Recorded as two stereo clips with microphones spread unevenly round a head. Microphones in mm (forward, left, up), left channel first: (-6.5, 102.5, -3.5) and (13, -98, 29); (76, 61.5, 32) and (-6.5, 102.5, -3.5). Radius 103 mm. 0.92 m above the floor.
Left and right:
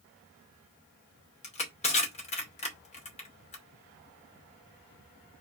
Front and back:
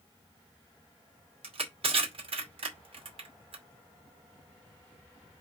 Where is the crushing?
155° left, 2.5 m.